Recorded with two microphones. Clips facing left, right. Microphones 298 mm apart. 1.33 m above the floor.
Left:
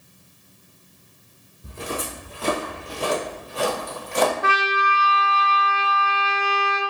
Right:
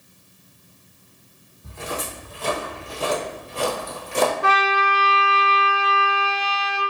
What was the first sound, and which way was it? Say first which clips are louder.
Footsteps: left 1 dB; 40° left (ahead or behind).